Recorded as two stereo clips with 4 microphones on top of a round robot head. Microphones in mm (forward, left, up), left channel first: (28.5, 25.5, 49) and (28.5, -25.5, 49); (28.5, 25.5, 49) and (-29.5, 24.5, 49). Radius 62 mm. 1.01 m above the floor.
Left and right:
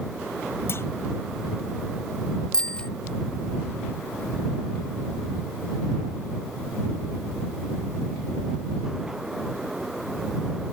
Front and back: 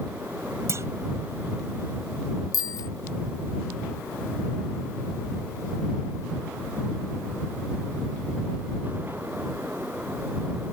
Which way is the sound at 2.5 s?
15° left.